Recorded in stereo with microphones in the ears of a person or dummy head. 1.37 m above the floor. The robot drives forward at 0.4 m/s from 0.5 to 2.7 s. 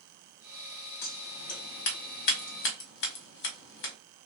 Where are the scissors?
50° left (ahead or behind), 1.6 m; by 3.9 s 65° left (ahead or behind), 1.4 m.